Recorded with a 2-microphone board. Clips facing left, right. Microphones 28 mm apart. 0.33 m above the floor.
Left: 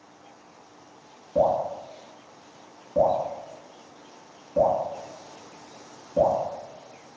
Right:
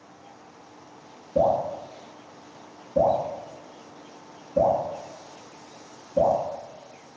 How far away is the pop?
I don't hear a pop.